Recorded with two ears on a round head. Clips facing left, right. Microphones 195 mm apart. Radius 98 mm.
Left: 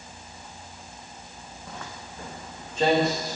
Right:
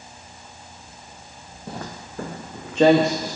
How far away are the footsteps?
About 0.9 m.